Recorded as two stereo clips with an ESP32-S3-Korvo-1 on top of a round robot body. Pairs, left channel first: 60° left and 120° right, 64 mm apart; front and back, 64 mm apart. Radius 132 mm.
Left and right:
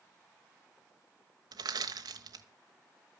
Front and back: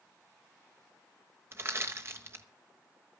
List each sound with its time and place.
1.5 s crushing: 130° right, 0.9 m